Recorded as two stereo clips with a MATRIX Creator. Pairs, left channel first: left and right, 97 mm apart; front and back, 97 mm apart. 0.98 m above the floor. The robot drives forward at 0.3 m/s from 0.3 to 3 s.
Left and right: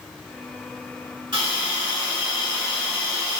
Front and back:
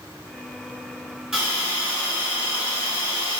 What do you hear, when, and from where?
1.3 s a hiss: 105° right, 1.3 m; by 3.4 s 125° right, 1.5 m